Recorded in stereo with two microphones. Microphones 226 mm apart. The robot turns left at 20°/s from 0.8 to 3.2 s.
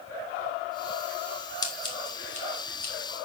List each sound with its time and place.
1.6 s scissors: 15° left (ahead or behind), 3 m; by 2.9 s 45° left (ahead or behind), 3 m